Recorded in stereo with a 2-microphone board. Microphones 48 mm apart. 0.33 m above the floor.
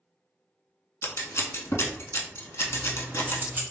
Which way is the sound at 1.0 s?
75° left (ahead or behind).